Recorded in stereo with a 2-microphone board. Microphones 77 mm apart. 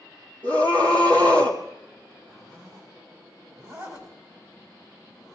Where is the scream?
85° right, 2.5 m.